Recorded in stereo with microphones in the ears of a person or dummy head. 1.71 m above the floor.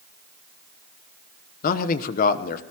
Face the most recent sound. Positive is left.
turn(degrees=45)  # may be behind; listen again after turning